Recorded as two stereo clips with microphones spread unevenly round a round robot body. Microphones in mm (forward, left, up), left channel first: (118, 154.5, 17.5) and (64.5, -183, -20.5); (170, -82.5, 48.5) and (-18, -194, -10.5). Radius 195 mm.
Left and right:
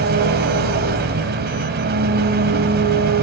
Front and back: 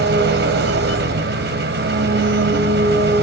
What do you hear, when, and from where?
0.0 s an engine running: 160° right, 1.5 m